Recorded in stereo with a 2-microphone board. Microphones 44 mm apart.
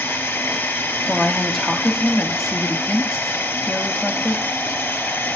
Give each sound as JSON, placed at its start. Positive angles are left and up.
{"t": 0.0, "sound": "running water", "side_deg": 65, "distance_m": 2.5}
{"t": 1.0, "sound": "a woman speaking", "side_deg": 0, "distance_m": 1.6}